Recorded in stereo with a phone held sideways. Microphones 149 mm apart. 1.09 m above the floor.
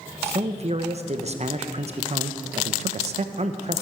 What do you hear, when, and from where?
0.2 s a man speaking: 45° right (ahead or behind), 0.9 m